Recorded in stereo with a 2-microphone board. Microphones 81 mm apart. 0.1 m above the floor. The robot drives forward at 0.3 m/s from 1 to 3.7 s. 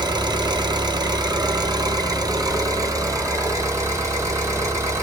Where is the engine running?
65° right (ahead or behind), 0.9 m; by 5.0 s 40° right (ahead or behind), 1.3 m.